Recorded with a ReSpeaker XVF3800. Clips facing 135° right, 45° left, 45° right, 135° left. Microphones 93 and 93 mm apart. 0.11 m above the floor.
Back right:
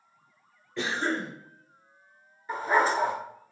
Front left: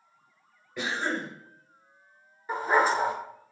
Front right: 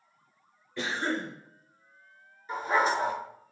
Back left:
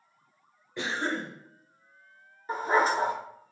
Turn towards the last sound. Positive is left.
turn(degrees=110)